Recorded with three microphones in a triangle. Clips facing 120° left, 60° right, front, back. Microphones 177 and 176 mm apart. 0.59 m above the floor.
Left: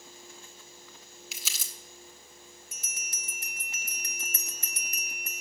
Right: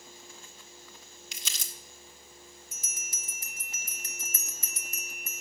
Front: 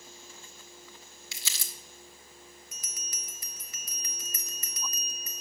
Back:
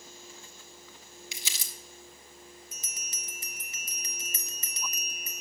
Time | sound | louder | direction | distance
1.3 | crumpling | right 2 dB, front 1 dB | 170° right | 1.0 m
2.7 | a bell | even, even | 120° left | 0.6 m